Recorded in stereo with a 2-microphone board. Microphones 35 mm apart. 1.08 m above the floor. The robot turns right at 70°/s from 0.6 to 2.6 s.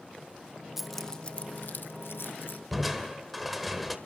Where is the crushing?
Centre (ahead or behind), 1.7 m.